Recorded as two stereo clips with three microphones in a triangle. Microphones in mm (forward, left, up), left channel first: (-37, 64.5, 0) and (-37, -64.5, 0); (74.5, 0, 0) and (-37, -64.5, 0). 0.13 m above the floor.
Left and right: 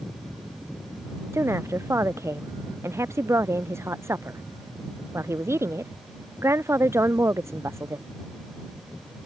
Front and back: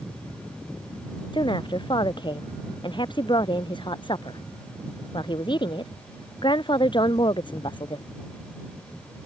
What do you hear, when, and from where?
1.3 s a woman speaking: 20° right